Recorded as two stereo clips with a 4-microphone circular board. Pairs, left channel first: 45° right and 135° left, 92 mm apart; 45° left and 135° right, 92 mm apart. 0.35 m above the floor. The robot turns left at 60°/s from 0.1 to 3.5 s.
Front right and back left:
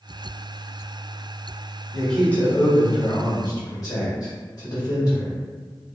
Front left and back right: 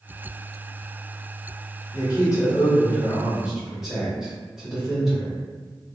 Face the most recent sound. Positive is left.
turn(degrees=-50)